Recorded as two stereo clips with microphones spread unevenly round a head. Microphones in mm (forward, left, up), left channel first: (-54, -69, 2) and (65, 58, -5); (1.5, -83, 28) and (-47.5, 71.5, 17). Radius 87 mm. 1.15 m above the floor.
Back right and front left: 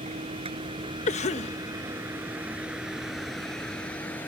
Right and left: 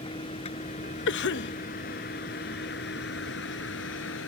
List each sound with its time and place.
0.0 s a vehicle: 10° right; by 4.3 s 55° right
1.1 s a cough: 80° right